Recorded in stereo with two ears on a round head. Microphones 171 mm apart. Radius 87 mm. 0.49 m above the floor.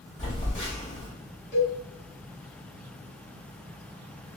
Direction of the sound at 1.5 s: 40° left (ahead or behind).